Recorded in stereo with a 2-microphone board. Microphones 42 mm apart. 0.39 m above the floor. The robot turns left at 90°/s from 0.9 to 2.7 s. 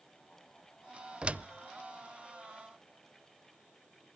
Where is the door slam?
20° right (ahead or behind), 0.7 m; by 1.5 s 40° right (ahead or behind), 0.7 m.